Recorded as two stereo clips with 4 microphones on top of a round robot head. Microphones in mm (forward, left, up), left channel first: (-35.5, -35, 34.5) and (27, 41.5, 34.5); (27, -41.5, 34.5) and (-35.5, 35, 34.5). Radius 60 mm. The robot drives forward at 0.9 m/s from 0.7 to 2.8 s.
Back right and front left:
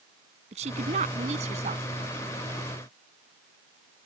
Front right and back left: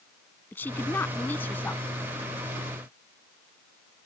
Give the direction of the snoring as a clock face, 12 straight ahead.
I don't hear snoring.